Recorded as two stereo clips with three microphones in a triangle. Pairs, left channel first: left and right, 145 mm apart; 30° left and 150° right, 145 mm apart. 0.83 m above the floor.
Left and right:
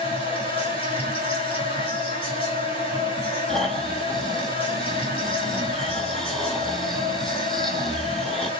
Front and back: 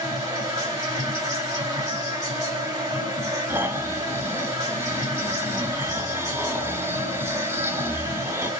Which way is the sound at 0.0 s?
145° left.